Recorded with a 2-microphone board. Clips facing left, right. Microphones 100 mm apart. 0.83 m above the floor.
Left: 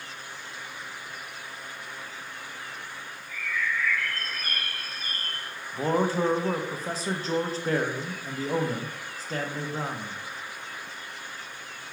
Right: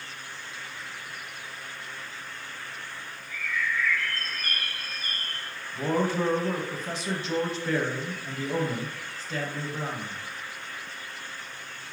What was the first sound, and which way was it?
A bird, 15° left (ahead or behind).